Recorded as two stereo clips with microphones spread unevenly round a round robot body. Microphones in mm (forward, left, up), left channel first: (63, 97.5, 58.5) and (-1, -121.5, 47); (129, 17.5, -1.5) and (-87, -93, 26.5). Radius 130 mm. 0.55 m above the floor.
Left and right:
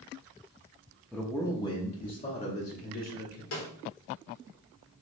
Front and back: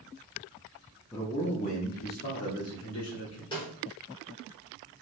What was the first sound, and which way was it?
A man speaking, 25° right.